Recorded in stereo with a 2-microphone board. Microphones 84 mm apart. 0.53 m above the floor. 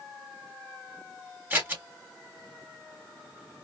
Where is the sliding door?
I don't hear a sliding door.